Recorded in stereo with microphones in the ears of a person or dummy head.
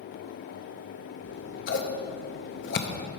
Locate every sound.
1.2 s scissors: 45° left (ahead or behind), 0.6 m